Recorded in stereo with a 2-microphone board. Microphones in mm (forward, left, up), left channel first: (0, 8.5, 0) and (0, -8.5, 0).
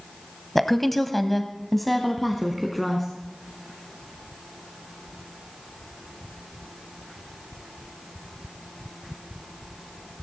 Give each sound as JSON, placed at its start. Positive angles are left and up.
{"t": 0.6, "sound": "a woman speaking", "side_deg": 10, "distance_m": 1.0}